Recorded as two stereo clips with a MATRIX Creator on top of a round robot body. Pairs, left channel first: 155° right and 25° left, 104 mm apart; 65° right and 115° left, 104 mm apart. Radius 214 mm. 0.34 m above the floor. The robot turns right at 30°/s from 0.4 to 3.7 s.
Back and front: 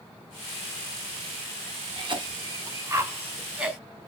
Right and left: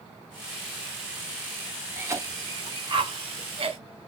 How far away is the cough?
About 1.5 m.